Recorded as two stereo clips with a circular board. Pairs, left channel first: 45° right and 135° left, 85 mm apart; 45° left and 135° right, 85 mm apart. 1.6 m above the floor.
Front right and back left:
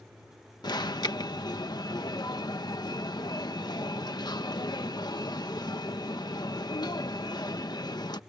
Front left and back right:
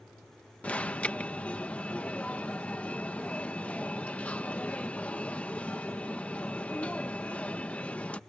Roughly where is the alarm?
Ahead right.